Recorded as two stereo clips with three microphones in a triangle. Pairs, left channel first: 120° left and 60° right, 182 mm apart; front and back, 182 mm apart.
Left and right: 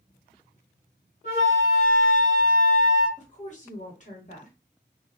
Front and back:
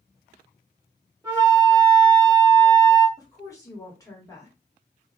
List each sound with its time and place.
1.2 s a flute: 75° left, 1.4 m
3.2 s a woman speaking: 70° left, 1.2 m